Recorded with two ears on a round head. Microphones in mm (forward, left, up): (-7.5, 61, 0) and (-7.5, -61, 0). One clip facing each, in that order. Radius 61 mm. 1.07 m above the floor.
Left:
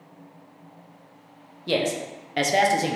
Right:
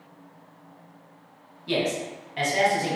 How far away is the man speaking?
About 0.7 m.